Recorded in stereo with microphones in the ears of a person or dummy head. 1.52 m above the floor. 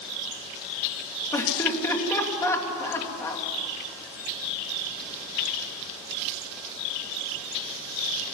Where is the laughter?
15° left (ahead or behind), 3 m.